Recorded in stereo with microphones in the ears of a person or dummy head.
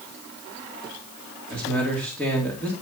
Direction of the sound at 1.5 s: Centre (ahead or behind).